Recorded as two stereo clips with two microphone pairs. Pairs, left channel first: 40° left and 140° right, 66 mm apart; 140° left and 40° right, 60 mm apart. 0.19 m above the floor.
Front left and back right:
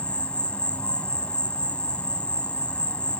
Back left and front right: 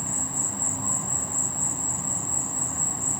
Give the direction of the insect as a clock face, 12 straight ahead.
10 o'clock.